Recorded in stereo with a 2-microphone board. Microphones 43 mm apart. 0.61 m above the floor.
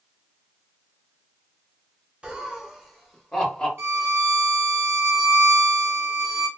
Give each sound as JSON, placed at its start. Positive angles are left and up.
{"t": 2.2, "sound": "laughter", "side_deg": -25, "distance_m": 0.7}
{"t": 3.8, "sound": "a violin", "side_deg": -65, "distance_m": 0.6}